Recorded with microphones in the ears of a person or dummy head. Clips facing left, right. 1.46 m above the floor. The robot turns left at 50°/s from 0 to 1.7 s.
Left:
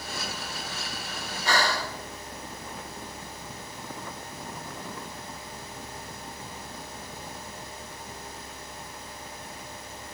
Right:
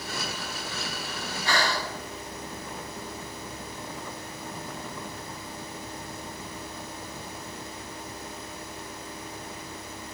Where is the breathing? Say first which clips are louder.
Left 1 dB; 35° left (ahead or behind), 1.4 m; by 1.9 s 45° left (ahead or behind), 1.4 m.